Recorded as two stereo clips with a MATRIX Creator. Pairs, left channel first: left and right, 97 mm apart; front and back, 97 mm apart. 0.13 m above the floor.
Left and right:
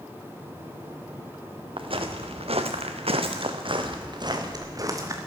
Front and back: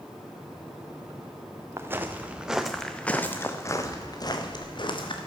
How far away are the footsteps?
About 1.8 m.